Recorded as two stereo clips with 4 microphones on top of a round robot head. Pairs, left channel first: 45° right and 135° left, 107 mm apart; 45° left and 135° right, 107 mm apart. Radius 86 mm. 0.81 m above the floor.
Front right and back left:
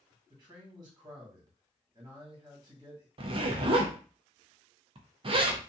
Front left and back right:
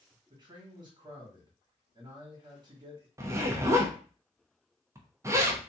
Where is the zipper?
165° left, 0.7 m.